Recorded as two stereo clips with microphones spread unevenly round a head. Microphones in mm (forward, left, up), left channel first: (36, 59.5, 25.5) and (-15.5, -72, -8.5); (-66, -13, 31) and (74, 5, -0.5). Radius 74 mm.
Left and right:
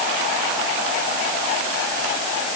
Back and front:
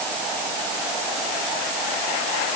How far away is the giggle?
I don't hear a giggle.